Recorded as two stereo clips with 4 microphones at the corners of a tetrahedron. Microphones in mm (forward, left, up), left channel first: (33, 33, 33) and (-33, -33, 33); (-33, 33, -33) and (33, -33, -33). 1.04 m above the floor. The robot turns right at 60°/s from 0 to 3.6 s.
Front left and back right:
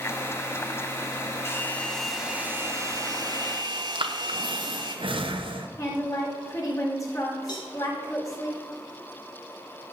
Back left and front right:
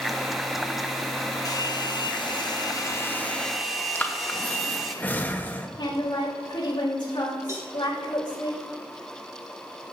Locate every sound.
1.4 s a hair dryer: 95° left, 1.4 m; by 5.0 s 135° right, 1.4 m
4.0 s breathing: 155° right, 0.9 m
5.8 s a woman speaking: 95° left, 4 m
7.5 s a cowbell: 10° left, 2 m